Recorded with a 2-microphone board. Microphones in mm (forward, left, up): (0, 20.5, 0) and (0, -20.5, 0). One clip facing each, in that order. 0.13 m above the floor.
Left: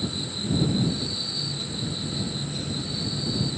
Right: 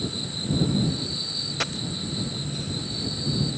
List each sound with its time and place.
1.6 s a dropped coin: 85° right